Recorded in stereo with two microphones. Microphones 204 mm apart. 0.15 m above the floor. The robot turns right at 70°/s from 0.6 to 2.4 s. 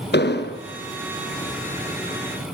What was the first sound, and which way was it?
An explosion, 55° left (ahead or behind).